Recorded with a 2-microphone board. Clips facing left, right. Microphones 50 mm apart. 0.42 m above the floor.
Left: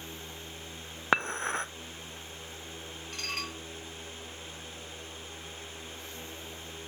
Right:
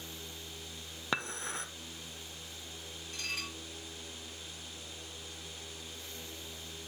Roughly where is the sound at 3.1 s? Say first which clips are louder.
Left 3 dB; left.